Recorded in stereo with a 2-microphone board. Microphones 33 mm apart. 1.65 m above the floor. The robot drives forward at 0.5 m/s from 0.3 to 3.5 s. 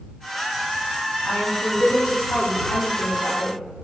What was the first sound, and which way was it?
A woman speaking, 85° left.